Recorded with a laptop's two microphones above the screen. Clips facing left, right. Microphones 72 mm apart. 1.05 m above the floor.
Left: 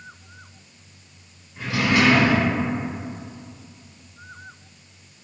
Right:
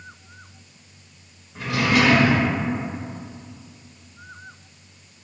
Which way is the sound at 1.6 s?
75° right (ahead or behind).